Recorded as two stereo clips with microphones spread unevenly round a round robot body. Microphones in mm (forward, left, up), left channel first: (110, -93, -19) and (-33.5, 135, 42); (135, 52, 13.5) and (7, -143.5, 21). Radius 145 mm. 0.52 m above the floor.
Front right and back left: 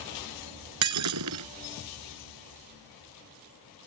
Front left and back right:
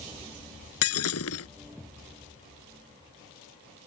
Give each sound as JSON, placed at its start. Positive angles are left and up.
{"t": 0.8, "sound": "breaking glass", "azimuth_deg": 100}